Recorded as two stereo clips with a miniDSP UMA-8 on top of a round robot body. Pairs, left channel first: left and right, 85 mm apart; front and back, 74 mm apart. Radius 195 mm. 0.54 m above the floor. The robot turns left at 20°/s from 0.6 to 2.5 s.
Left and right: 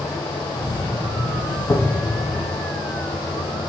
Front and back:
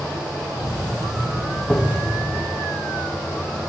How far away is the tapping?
About 1.6 m.